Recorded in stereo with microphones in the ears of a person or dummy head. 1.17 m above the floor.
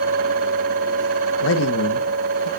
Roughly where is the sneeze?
I don't hear a sneeze.